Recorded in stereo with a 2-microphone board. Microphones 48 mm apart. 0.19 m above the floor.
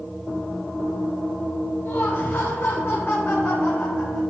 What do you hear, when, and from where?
1.9 s laughter: 50° left (ahead or behind), 4 m